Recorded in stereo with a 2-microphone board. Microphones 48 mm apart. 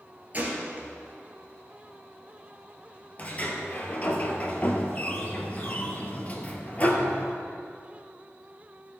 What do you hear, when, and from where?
0.3 s a gunshot: 35° right (ahead or behind), 2 m
3.2 s a sliding door: 30° left (ahead or behind), 1.3 m